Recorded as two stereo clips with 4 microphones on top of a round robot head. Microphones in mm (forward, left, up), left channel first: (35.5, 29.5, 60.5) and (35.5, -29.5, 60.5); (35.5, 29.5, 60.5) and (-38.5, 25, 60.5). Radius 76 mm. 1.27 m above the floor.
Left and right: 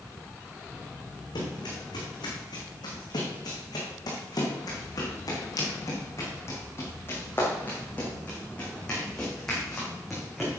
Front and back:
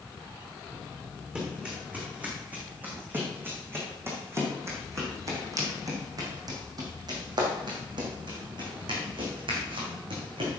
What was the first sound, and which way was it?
Running footsteps, 110° left.